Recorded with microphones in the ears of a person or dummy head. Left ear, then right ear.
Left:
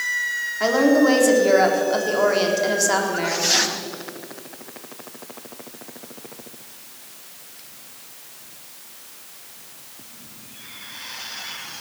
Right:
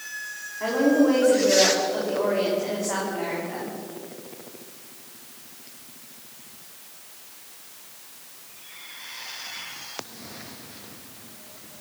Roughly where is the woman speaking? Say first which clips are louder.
Left 4 dB; left.